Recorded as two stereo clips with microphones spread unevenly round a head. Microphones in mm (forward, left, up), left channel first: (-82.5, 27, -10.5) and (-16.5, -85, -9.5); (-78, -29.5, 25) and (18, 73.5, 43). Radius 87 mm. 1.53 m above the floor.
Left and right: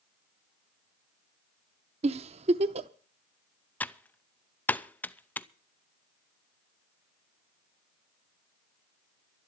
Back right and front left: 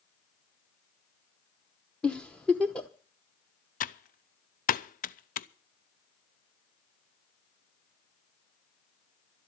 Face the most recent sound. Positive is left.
turn(degrees=-160)